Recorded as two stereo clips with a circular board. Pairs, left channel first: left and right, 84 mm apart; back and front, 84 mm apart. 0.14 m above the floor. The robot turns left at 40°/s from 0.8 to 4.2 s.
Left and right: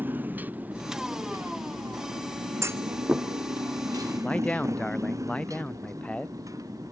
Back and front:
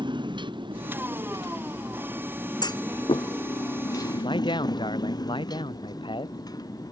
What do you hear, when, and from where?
0.0 s a motorcycle: 20° right; by 6.9 s 140° right
2.6 s a clunk: 145° right; by 3.3 s 170° right
4.2 s a man speaking: 165° left